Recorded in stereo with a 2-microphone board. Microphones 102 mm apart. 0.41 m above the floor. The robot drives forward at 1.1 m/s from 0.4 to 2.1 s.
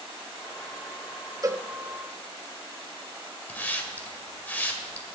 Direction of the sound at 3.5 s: 15° left (ahead or behind).